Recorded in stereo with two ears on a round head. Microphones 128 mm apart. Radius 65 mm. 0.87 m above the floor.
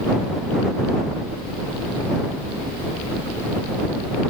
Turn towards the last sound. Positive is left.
No sound to turn to.